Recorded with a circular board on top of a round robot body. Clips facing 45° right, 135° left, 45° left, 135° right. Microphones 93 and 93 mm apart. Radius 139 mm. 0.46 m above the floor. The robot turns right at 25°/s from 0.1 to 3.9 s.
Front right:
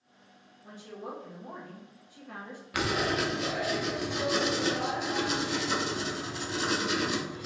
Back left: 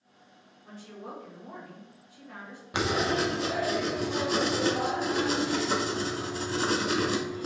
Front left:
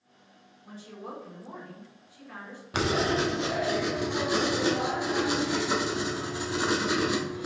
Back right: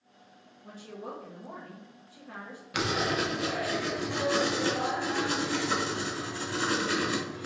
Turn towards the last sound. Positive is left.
turn(degrees=110)